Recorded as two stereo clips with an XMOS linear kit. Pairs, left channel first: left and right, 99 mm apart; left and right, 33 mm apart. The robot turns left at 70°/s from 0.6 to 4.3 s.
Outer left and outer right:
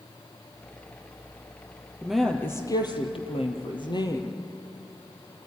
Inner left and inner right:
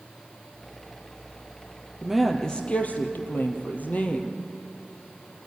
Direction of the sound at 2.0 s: 170° right.